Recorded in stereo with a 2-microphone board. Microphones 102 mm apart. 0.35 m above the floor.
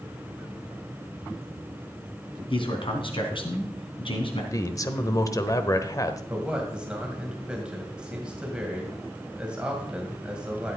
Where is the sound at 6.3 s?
10° right (ahead or behind), 2 m.